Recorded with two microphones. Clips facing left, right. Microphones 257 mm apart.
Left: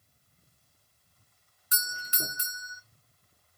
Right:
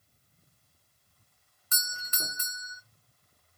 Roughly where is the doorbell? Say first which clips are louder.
Left 3 dB; centre.